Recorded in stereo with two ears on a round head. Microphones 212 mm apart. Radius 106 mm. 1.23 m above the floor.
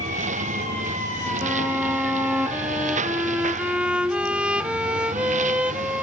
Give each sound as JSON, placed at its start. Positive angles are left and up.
{"t": 0.0, "sound": "a lawn mower", "side_deg": -30}
{"t": 1.4, "sound": "a violin", "side_deg": -5}